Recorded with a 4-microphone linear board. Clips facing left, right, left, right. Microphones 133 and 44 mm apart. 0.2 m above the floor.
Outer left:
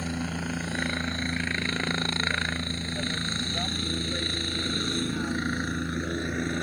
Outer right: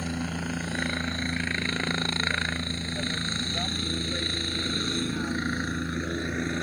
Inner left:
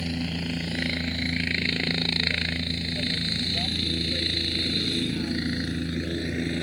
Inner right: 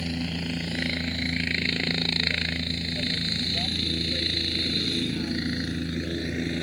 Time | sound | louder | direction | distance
0.0 | a helicopter | even, even | centre (ahead or behind) | ?